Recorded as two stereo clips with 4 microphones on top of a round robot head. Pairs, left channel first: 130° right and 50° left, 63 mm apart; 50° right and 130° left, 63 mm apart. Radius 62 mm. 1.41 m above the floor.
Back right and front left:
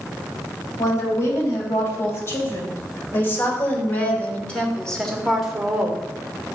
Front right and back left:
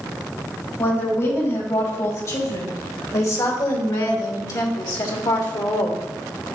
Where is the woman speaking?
95° right, 3 m; by 6.0 s 25° right, 1.3 m.